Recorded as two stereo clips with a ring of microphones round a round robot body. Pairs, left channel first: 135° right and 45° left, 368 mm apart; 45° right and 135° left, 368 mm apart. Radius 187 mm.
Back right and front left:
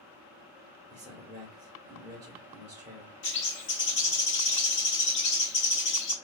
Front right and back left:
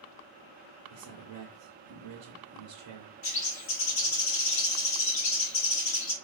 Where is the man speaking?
120° left, 1.0 m.